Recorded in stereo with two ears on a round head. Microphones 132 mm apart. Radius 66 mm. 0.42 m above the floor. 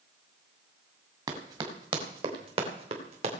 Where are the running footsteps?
30° right (ahead or behind), 3 m; by 3.3 s 45° right (ahead or behind), 4 m.